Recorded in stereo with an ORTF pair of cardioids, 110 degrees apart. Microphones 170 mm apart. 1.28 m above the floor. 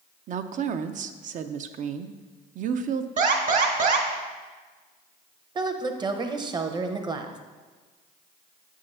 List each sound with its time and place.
0.3 s a woman speaking: 50° right, 0.6 m
3.2 s an alarm: 45° right, 1.5 m
5.5 s a woman speaking: 25° right, 0.8 m